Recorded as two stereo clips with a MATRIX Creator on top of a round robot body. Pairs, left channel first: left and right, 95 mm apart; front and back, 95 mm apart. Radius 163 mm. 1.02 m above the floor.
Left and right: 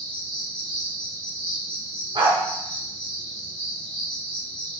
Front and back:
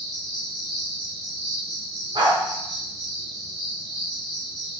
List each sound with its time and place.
0.0 s an insect: 165° left, 4.5 m
2.1 s a dog barking: 135° right, 1.2 m